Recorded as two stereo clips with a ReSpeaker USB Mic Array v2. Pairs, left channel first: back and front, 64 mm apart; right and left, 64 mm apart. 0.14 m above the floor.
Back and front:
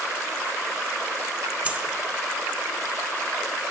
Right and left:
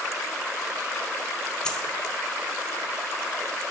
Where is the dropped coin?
30° right, 0.7 m.